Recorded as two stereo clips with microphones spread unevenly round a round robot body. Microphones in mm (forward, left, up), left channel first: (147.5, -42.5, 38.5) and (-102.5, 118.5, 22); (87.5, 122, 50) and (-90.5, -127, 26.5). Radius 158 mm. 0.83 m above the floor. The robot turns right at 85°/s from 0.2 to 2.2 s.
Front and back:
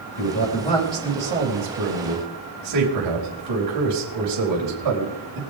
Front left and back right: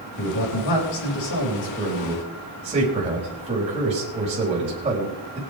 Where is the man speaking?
5° right, 4.5 m; by 5.4 s 165° left, 4.5 m.